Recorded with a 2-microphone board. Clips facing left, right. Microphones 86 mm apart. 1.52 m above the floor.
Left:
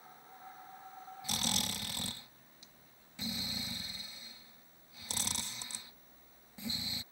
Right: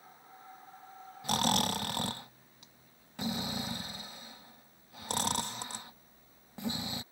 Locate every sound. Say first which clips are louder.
1.2 s snoring: right 10 dB; 55° right (ahead or behind)